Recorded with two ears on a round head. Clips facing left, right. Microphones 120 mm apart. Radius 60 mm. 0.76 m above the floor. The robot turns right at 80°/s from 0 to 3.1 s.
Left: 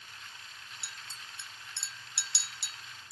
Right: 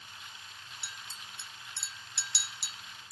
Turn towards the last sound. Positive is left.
turn(degrees=45)  # may be behind; listen again after turning